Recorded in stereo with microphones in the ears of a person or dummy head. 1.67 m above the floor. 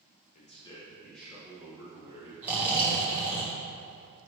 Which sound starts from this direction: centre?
Snoring, at 2.4 s.